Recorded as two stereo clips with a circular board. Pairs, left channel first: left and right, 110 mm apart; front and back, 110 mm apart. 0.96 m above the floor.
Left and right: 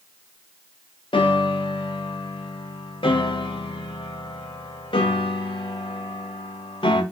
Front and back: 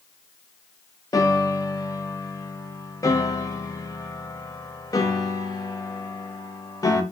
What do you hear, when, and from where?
1.1 s a piano: 55° left, 0.5 m